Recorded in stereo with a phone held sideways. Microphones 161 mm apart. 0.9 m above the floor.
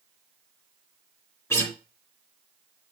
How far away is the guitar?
About 3 m.